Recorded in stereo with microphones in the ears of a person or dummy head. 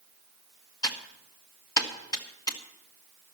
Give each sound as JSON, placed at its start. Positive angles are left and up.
{"t": 0.8, "sound": "typing on a keyboard", "side_deg": 25, "distance_m": 1.4}